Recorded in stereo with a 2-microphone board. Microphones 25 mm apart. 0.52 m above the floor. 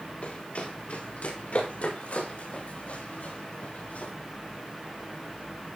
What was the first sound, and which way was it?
Running footsteps, 65° left (ahead or behind).